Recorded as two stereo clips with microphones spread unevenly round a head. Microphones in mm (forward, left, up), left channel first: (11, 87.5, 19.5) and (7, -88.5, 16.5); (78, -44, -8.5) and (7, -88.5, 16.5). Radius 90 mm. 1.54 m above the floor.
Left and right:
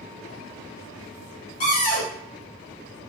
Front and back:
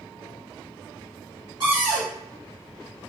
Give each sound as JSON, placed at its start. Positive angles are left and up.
{"t": 1.6, "sound": "a cupboard door", "azimuth_deg": 140, "distance_m": 1.0}